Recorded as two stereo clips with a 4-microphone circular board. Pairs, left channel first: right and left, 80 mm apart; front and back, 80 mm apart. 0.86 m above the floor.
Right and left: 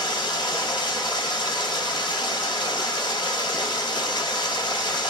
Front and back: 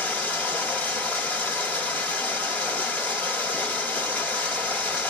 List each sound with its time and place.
0.0 s running water: 70° right, 1.5 m